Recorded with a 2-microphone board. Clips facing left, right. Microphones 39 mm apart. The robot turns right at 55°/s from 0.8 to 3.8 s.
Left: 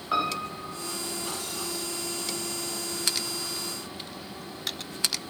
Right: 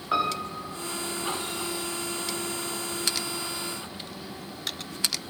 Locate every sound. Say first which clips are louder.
0.1 s a piano: right 1 dB; 5° right (ahead or behind), 3.5 m; by 0.9 s 10° right (ahead or behind), 3.5 m